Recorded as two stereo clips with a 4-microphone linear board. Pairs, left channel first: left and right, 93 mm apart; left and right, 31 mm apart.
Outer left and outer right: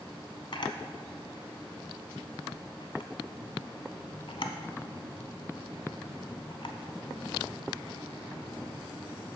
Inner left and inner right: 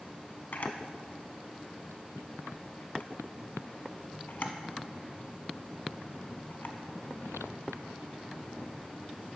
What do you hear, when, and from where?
0.5 s a camera shutter: 65° left (ahead or behind), 0.6 m